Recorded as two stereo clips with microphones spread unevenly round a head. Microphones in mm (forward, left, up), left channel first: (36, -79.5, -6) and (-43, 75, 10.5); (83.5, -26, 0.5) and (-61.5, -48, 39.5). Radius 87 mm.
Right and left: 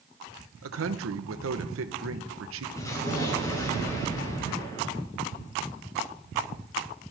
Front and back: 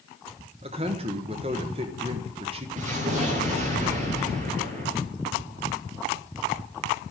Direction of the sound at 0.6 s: 130° left.